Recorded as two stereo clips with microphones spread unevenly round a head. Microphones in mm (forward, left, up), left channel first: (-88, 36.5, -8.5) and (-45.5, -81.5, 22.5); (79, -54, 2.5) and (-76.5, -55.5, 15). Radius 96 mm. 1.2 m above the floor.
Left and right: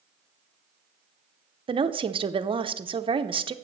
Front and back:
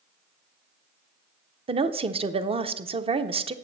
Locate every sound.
1.7 s a woman speaking: 125° right, 0.7 m